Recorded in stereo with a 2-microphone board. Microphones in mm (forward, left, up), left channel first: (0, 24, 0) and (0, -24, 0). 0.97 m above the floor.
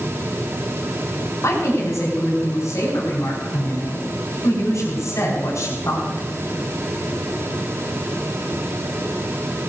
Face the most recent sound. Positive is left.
turn(degrees=70)  # may be behind; listen again after turning